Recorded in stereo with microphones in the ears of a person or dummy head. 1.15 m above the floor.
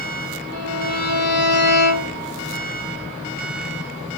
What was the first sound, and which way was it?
A violin, 75° left (ahead or behind).